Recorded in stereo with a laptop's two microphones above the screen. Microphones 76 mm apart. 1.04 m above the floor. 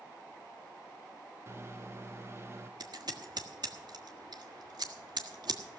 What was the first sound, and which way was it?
A microwave, 35° right (ahead or behind).